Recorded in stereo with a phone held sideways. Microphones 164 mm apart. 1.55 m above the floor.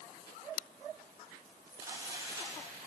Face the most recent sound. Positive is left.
turn(degrees=-25)  # may be behind; listen again after turning